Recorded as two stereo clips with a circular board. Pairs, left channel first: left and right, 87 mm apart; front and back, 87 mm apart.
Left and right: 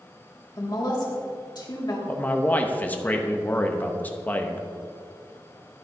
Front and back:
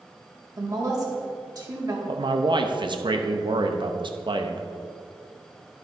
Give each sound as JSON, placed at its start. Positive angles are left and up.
{"t": 0.6, "sound": "a woman speaking", "azimuth_deg": 130, "distance_m": 1.9}
{"t": 2.1, "sound": "a man speaking", "azimuth_deg": 160, "distance_m": 0.8}